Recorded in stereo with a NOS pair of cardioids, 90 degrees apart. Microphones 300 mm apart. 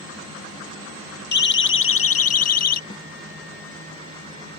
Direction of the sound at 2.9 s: 15° left.